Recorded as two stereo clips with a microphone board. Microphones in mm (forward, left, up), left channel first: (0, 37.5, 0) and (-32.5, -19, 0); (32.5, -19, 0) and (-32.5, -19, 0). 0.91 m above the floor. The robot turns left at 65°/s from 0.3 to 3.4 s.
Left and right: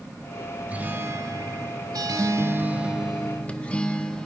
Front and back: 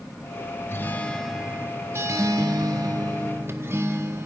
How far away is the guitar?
About 1.2 m.